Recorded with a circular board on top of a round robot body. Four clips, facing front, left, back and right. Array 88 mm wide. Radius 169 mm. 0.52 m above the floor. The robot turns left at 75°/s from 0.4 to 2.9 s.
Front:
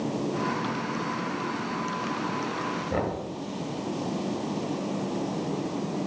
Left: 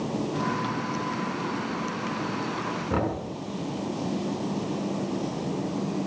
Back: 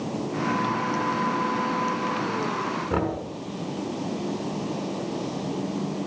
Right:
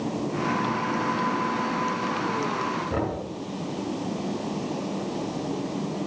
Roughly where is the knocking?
Behind left.